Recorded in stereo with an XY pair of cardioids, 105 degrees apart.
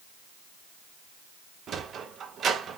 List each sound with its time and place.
1.7 s a sliding door: 55° right, 1.2 m